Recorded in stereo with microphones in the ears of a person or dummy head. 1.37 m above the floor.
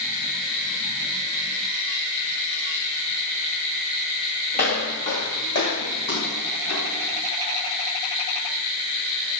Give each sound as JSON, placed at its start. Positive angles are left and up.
{"t": 4.5, "sound": "footsteps", "side_deg": 40, "distance_m": 1.8}